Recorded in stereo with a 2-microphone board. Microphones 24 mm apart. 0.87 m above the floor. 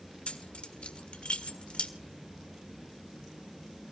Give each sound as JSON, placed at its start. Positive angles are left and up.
{"t": 0.3, "sound": "keys jangling", "side_deg": 50, "distance_m": 1.8}